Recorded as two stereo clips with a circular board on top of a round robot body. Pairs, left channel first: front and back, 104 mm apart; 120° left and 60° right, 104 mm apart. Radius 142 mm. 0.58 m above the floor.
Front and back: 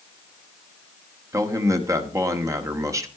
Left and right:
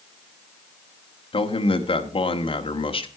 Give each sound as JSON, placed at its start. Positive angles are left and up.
{"t": 1.3, "sound": "a man speaking", "azimuth_deg": 125, "distance_m": 1.9}